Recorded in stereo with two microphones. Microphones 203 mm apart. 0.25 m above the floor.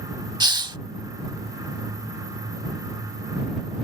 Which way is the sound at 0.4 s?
20° right (ahead or behind).